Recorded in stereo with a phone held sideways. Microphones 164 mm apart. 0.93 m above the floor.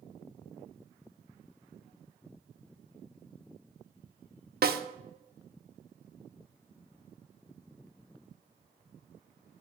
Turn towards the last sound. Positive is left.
turn(degrees=-70)  # may be behind; listen again after turning